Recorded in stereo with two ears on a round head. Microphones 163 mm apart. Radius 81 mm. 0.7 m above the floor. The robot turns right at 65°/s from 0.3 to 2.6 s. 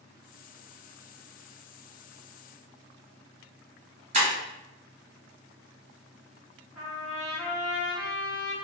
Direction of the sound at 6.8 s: 15° right (ahead or behind).